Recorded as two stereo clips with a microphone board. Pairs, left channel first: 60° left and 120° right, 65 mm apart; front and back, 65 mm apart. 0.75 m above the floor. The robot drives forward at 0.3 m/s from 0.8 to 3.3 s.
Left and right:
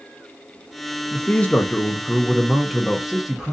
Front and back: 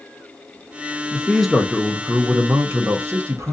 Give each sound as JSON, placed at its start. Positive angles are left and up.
{"t": 1.1, "sound": "a man speaking", "azimuth_deg": 70, "distance_m": 0.5}